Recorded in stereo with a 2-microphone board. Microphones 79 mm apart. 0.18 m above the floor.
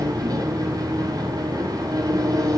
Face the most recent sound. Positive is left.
turn(degrees=-55)  # may be behind; listen again after turning